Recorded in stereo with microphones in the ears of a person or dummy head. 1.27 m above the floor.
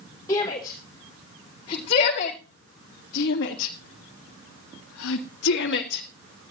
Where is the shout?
20° left (ahead or behind), 3.5 m; by 6.0 s 55° left (ahead or behind), 2.5 m.